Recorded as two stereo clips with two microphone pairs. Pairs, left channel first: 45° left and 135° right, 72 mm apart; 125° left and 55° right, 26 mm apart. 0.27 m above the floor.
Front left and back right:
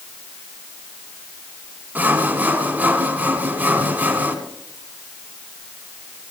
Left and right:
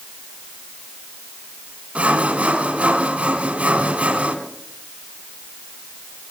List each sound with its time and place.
1.9 s sawing: 80° right, 1.9 m